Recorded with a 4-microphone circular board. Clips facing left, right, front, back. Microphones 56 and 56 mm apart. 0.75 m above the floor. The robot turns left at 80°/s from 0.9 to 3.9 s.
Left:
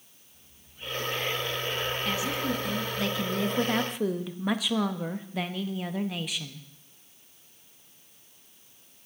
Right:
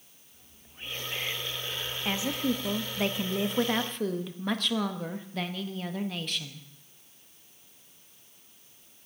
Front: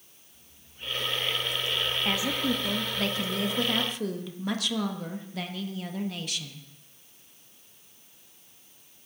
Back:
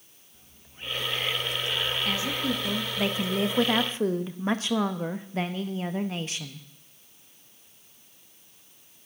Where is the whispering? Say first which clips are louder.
Even, back 2 dB; 140° right, 0.7 m; by 3.0 s 50° left, 0.7 m.